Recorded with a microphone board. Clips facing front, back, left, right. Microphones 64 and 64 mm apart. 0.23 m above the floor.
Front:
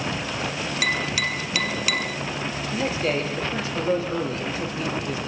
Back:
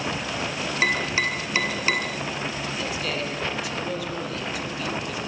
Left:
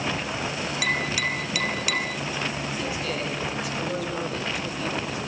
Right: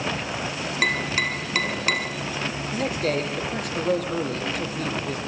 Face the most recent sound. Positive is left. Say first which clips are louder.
# front 4 dB, right 4 dB
turn(degrees=-55)